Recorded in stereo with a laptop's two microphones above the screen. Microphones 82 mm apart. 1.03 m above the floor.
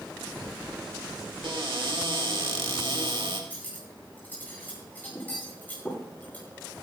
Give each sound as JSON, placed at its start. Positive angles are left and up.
{"t": 1.4, "sound": "a cupboard door", "side_deg": -80, "distance_m": 2.0}
{"t": 3.5, "sound": "cutlery clinking", "side_deg": 20, "distance_m": 9.5}